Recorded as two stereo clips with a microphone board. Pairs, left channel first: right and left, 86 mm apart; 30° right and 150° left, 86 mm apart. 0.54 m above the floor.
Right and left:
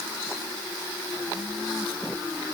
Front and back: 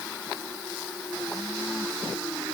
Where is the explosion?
I don't hear an explosion.